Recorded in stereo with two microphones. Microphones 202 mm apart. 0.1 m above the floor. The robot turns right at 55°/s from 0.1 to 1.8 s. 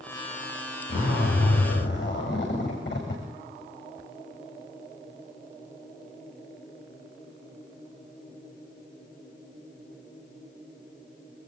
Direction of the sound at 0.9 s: 65° left.